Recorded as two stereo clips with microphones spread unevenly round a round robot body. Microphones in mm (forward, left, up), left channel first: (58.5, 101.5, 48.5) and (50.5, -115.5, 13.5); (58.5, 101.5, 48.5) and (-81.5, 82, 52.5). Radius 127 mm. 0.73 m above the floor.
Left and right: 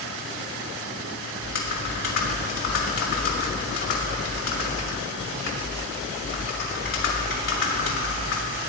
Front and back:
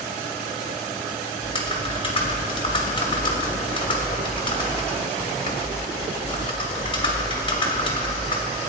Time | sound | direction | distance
1.4 | typing on a keyboard | 60° left | 2.5 m